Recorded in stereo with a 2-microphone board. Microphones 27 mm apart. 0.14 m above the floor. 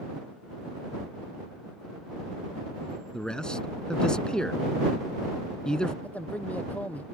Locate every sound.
3.1 s a man speaking: 35° left (ahead or behind)
6.0 s a man speaking: 70° left (ahead or behind)